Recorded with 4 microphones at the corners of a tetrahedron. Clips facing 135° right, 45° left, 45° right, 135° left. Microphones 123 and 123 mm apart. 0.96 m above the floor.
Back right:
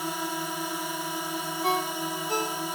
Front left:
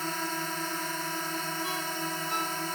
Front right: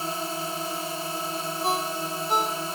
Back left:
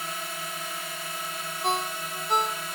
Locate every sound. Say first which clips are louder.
0.0 s a drone: back right 2 dB, front right 6 dB; 65° right
1.6 s a ringtone: back right 6 dB, even; 135° right